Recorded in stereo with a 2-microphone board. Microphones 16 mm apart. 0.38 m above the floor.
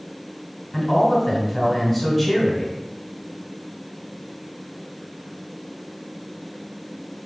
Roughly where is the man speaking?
Centre.